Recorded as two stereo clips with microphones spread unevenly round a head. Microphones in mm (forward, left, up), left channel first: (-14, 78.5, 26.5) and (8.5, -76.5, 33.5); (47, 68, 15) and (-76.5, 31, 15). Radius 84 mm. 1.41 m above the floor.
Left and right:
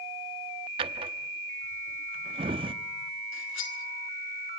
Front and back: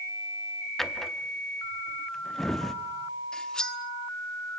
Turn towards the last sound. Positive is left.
turn(degrees=100)